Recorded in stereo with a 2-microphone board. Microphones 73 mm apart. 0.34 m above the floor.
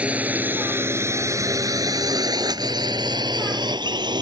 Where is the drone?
20° right (ahead or behind); by 4.2 s 80° right.